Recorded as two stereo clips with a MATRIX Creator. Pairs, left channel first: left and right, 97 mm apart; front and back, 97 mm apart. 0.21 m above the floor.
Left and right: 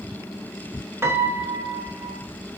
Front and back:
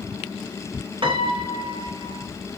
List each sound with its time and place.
1.0 s a piano: 150° right, 0.5 m